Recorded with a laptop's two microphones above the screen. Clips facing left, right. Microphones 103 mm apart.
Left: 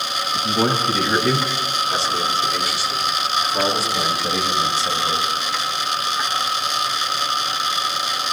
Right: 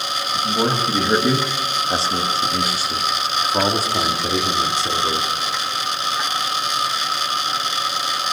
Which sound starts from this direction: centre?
A man speaking, at 0.3 s.